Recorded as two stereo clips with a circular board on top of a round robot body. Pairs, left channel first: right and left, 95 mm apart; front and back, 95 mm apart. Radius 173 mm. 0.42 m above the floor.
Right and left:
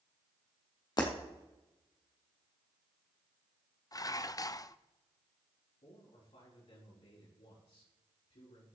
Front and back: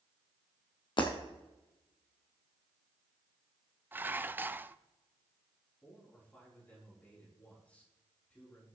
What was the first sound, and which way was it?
Breaking glass, 40° right.